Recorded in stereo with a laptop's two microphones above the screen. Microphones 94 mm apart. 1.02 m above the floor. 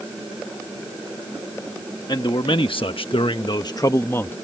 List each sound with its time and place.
2.1 s a man speaking: 50° left (ahead or behind); by 4.4 s 20° left (ahead or behind)